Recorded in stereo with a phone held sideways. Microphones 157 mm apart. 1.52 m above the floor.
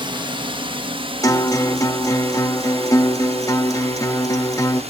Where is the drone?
35° right (ahead or behind); by 4.9 s 45° right (ahead or behind).